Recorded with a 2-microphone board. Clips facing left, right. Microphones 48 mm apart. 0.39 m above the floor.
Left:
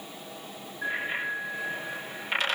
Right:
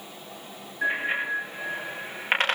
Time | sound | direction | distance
0.8 | a bicycle bell | 55° right (ahead or behind) | 8.5 m